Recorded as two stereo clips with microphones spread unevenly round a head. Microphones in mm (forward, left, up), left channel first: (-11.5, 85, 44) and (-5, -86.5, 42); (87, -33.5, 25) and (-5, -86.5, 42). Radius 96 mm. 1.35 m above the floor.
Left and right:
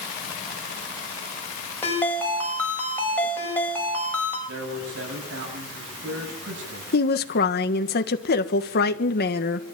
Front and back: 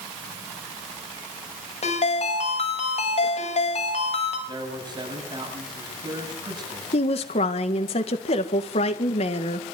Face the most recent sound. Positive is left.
turn(degrees=60)